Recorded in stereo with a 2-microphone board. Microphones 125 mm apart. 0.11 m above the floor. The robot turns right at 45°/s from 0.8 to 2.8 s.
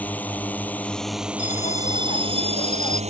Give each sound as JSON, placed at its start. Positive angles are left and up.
{"t": 0.0, "sound": "a drone", "azimuth_deg": 165}
{"t": 1.4, "sound": "a bell", "azimuth_deg": 75}